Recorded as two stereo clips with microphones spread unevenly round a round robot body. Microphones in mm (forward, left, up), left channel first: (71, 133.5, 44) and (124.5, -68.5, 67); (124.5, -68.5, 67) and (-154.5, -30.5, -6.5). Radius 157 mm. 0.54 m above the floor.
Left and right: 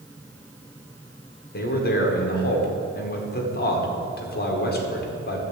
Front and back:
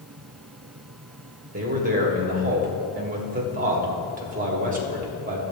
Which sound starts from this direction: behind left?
A man speaking, at 1.5 s.